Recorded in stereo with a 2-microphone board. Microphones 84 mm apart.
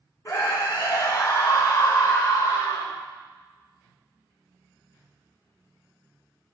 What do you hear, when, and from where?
0.2 s a scream: 45° left (ahead or behind), 1.6 m; by 3.0 s 40° left (ahead or behind), 2.5 m